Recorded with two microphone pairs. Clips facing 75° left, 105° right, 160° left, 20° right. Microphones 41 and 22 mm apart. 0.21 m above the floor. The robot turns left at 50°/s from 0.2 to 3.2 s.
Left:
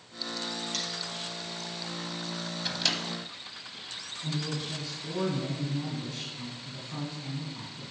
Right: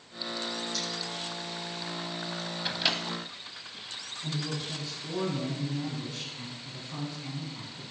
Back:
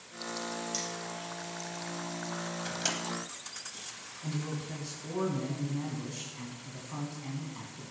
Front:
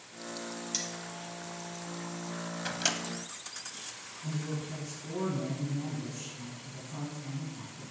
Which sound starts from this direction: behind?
A man speaking, at 4.2 s.